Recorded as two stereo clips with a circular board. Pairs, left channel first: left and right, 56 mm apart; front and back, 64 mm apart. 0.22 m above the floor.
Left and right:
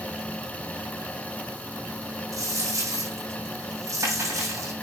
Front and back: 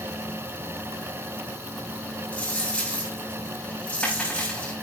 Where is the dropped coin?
70° right, 6.5 m.